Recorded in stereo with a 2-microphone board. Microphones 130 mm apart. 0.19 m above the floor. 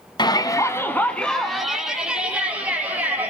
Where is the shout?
35° left (ahead or behind), 1.2 m; by 3.3 s 15° right (ahead or behind), 3 m.